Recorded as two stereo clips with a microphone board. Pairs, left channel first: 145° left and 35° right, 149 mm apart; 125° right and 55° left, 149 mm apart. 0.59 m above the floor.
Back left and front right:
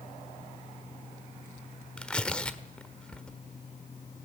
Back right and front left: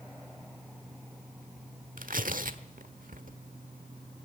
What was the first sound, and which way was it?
Tearing paper, 60° left.